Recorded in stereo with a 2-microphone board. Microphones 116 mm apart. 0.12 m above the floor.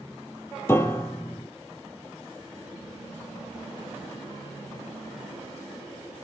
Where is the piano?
20° left (ahead or behind), 0.6 m.